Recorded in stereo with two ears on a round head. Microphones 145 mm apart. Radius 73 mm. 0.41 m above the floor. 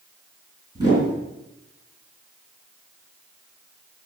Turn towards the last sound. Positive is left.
turn(degrees=-25)  # may be behind; listen again after turning